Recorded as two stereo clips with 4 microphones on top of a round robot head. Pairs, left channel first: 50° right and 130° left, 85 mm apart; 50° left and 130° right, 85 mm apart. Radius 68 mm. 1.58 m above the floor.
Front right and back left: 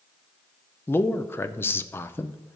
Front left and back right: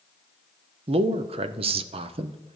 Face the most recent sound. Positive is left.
turn(degrees=-115)